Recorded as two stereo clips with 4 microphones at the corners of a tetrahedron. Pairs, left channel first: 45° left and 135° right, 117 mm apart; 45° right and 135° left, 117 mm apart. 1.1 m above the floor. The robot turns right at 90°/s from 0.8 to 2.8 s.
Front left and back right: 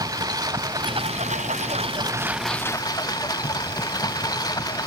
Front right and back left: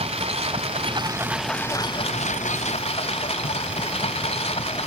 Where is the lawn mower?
170° left; by 4.9 s 10° right.